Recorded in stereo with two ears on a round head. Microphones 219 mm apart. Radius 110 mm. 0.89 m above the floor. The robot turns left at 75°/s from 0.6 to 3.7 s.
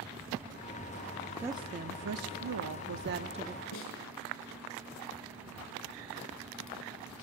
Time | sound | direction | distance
1.4 | a woman speaking | 10° right | 1.3 m
3.7 | a snare drum | 90° left | 6.5 m